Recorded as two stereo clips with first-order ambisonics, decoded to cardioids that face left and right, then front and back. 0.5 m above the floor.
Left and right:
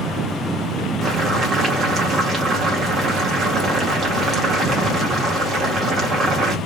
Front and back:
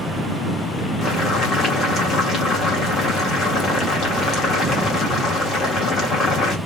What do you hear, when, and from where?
1.0 s boiling: 40° right, 1.4 m